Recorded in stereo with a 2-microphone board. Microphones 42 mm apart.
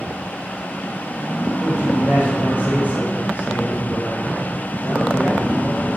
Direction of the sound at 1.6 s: 40° right (ahead or behind).